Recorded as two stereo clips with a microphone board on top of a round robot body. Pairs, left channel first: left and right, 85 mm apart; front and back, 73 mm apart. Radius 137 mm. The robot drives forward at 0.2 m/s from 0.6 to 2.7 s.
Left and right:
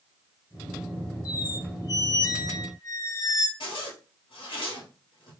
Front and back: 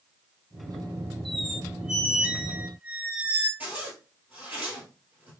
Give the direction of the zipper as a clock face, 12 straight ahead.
8 o'clock.